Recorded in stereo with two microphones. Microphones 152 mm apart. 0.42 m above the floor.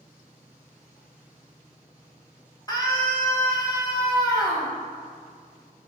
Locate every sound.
2.7 s a scream: 25° left (ahead or behind), 2 m